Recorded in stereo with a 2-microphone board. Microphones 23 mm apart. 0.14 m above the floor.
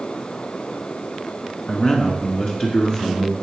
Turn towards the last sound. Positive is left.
turn(degrees=60)  # may be behind; listen again after turning